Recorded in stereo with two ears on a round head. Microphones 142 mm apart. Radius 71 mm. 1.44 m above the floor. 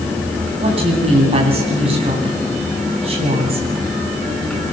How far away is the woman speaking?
About 10 m.